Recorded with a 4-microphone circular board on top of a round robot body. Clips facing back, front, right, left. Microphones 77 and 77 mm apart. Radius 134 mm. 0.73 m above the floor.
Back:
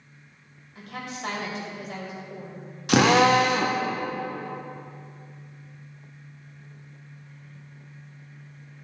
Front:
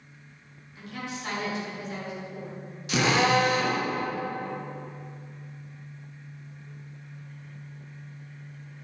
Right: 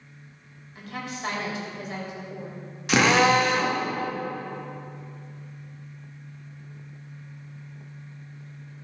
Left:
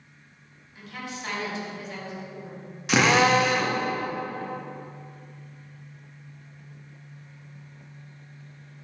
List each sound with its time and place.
0.8 s a woman speaking: 140° right, 3.5 m
2.9 s a drill: straight behind, 1.4 m